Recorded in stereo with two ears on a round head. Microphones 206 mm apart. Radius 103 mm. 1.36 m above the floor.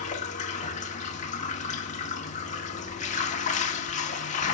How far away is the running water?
About 1.9 m.